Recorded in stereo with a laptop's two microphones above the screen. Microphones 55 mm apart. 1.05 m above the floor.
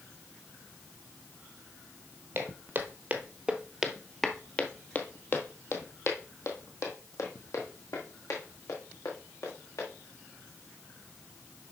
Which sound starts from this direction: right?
Footsteps, at 2.4 s.